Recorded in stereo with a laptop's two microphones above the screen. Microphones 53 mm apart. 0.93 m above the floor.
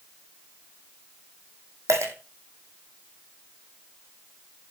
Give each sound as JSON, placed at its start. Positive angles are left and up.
{"t": 1.9, "sound": "a dropped coin", "side_deg": -65, "distance_m": 3.0}